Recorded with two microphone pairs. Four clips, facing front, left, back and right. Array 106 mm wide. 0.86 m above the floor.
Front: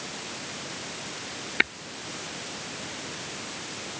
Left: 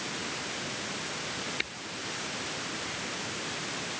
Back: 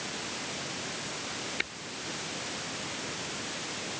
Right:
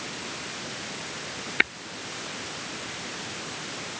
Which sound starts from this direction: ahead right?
Tapping, at 1.6 s.